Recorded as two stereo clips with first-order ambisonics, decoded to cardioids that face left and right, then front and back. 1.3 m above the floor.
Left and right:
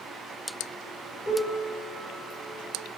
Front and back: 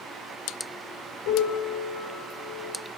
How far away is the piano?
About 3 m.